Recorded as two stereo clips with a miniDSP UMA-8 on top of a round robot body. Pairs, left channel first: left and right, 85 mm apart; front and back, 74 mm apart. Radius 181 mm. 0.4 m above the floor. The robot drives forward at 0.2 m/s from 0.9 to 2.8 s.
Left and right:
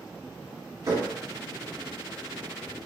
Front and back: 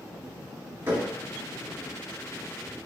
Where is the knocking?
125° right, 1.6 m; by 1.1 s 130° right, 1.6 m.